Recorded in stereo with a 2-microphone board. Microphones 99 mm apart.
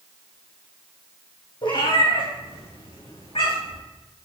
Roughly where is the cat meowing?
Left.